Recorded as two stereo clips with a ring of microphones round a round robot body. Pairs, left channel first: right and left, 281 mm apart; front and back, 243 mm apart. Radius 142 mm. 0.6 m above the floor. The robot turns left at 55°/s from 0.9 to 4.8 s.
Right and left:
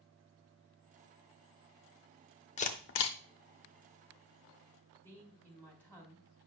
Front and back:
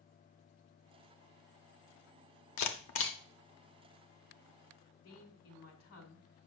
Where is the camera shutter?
25° right, 0.7 m; by 3.2 s 55° right, 0.7 m.